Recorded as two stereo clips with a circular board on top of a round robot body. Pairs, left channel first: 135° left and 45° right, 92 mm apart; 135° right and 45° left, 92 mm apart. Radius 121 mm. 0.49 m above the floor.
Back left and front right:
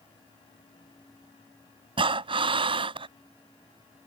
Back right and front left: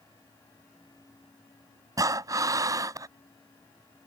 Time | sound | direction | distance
2.0 | breathing | 10° right | ?